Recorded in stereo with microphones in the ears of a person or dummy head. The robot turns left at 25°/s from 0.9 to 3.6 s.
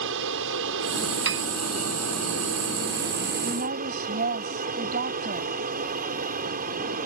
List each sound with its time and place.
0.0 s an aircraft: 70° right; by 7.1 s 140° right
1.2 s a piano: 60° right (ahead or behind); by 1.5 s 65° right (ahead or behind)
3.4 s a woman speaking: 45° right (ahead or behind)